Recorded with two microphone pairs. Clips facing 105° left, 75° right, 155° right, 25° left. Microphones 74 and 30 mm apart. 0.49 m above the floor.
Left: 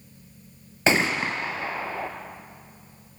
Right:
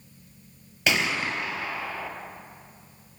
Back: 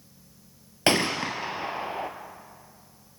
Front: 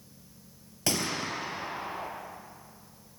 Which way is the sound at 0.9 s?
160° left.